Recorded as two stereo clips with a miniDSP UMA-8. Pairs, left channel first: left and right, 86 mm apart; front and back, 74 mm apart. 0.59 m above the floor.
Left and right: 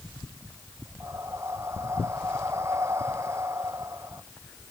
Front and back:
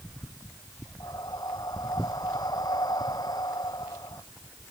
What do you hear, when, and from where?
1.0 s breathing: 30° right